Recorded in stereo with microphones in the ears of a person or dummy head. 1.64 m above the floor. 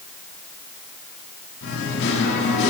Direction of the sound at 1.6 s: 65° left (ahead or behind).